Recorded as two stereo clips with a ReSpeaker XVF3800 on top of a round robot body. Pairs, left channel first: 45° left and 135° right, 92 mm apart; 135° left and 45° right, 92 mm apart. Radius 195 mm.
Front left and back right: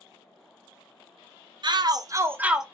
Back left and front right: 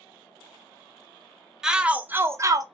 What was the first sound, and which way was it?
A shout, 130° right.